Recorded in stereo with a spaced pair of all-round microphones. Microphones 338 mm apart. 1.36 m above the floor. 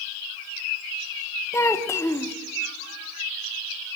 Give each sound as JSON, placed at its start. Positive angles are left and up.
{"t": 1.5, "sound": "a child speaking", "side_deg": 10, "distance_m": 0.9}